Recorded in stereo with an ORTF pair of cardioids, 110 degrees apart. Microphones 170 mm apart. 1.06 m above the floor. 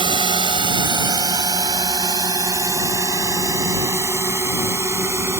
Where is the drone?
30° right; by 5.4 s 15° right.